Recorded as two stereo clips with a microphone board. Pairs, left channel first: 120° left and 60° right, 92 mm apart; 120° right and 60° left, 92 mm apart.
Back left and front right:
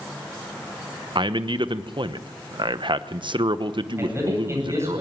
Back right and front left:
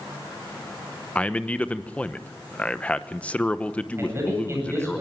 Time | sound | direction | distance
1.1 | a man speaking | 45° right | 0.9 m
4.0 | a man speaking | straight ahead | 9 m